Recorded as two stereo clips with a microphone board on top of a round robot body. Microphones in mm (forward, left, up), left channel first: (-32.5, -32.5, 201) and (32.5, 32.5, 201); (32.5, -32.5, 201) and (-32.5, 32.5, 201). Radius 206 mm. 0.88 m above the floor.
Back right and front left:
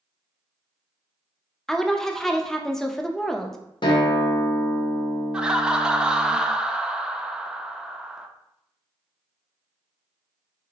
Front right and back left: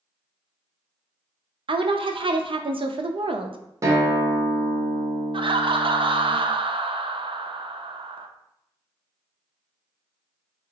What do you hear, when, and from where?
1.7 s a woman speaking: 140° left, 0.5 m
3.8 s a guitar: 170° right, 0.7 m
5.3 s laughter: 125° left, 0.5 m